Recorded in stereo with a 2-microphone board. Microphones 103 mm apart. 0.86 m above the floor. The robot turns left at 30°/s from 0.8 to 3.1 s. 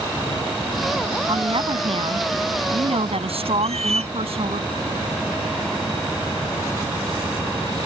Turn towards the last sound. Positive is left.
turn(degrees=-85)